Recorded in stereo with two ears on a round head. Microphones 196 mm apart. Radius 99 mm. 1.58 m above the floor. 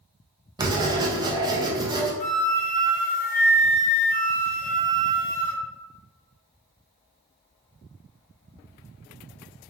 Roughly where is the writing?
Centre.